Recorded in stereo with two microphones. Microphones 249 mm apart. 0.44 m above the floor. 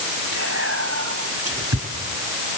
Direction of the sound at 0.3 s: 70° right (ahead or behind).